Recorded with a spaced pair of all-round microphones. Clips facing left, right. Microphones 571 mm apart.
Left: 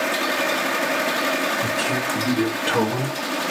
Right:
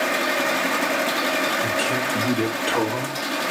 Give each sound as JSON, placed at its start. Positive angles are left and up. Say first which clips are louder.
{"t": 1.6, "sound": "a man speaking", "louder": "even", "side_deg": 50, "distance_m": 2.5}